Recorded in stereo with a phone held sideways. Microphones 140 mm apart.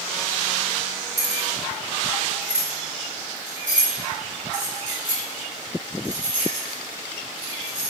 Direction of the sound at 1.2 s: 60° right (ahead or behind).